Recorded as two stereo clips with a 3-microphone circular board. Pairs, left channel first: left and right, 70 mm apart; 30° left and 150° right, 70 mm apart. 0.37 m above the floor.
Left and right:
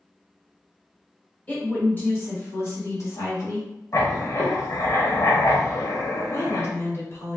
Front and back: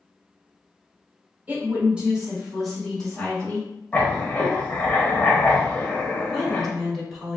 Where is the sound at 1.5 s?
150° left, 1.8 m; by 3.7 s 90° left, 1.9 m.